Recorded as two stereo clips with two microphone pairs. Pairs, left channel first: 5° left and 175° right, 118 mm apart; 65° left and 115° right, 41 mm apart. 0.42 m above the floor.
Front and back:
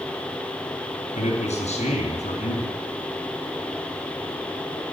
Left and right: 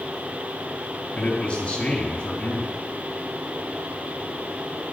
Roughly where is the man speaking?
Ahead.